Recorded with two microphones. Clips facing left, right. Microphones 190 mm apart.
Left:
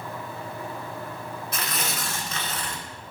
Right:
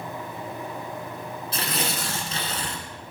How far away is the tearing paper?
About 1.3 m.